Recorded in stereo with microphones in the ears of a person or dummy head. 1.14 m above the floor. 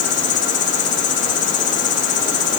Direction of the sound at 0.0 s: 40° left (ahead or behind).